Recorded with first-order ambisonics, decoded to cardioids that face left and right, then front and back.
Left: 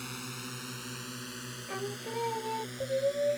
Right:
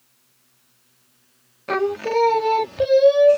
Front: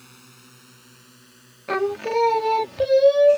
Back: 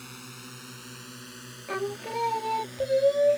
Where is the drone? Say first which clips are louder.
Left 24 dB, back 6 dB; 110° left; by 3.4 s 125° left.